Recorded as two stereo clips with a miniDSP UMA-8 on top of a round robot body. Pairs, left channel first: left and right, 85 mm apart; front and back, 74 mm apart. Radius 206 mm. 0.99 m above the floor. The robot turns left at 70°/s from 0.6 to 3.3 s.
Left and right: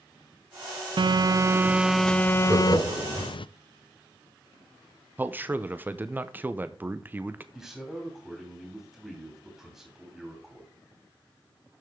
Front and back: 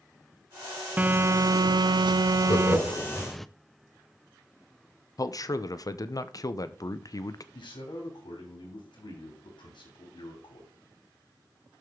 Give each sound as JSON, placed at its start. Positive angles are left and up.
{"t": 1.0, "sound": "a phone buzzing", "azimuth_deg": -110, "distance_m": 0.5}
{"t": 2.5, "sound": "laughter", "azimuth_deg": -25, "distance_m": 4.0}
{"t": 5.2, "sound": "a man speaking", "azimuth_deg": -25, "distance_m": 1.0}
{"t": 7.5, "sound": "a man speaking", "azimuth_deg": -5, "distance_m": 3.5}